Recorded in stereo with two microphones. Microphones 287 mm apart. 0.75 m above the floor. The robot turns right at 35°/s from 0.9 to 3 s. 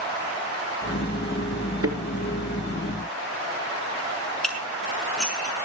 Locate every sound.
1.8 s a thud: 50° right (ahead or behind), 4 m; by 2.0 s 45° right (ahead or behind), 4 m
4.4 s dishes clattering: centre (ahead or behind), 5.5 m